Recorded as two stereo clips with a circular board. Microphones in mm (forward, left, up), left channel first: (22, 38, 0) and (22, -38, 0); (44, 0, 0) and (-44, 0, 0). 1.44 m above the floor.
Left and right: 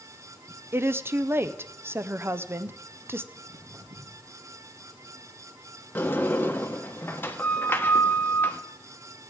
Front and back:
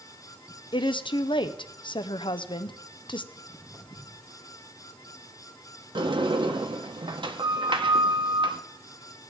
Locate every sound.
0.7 s a woman speaking: 30° right, 0.6 m
3.3 s footsteps: 80° right, 6.5 m
6.0 s a sliding door: 155° left, 0.8 m